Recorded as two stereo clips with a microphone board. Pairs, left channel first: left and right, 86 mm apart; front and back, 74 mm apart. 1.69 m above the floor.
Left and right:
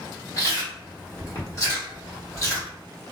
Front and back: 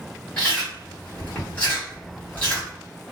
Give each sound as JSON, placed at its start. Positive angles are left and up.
{"t": 0.4, "sound": "chewing", "azimuth_deg": 65, "distance_m": 1.4}